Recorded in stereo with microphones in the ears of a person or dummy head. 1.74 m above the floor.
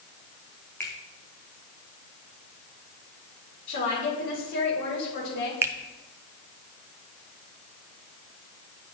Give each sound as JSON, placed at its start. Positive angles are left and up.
{"t": 0.8, "sound": "a finger snap", "side_deg": 10, "distance_m": 1.4}
{"t": 3.7, "sound": "a woman speaking", "side_deg": 50, "distance_m": 4.5}
{"t": 5.6, "sound": "a finger snap", "side_deg": -15, "distance_m": 0.6}